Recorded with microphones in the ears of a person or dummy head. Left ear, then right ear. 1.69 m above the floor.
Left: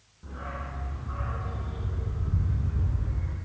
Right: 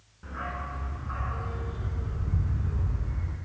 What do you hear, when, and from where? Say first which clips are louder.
0.2 s a dog barking: right 3 dB; 30° right (ahead or behind), 9 m; by 3.4 s 10° right (ahead or behind), 7.5 m